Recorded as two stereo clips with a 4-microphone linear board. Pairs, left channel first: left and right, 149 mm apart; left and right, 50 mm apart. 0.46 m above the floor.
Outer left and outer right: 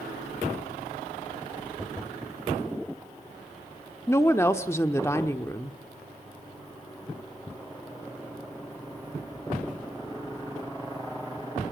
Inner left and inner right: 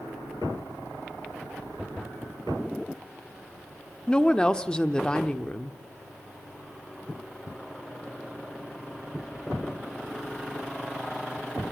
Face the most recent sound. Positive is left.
turn(degrees=20)  # may be behind; listen again after turning